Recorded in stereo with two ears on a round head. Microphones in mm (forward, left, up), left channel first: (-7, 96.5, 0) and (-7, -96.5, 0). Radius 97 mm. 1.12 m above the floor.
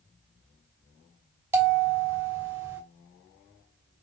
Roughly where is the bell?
Centre.